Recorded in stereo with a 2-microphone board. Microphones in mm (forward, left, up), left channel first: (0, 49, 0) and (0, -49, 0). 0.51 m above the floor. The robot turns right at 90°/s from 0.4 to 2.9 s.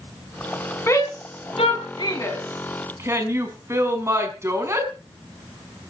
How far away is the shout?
About 4.5 m.